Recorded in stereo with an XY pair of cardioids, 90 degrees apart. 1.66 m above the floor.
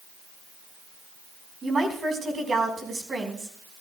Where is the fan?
No fan in this recording.